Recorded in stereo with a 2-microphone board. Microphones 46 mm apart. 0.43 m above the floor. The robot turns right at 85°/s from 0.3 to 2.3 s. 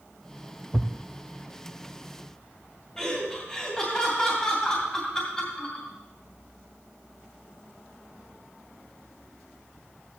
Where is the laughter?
20° left (ahead or behind), 2.5 m.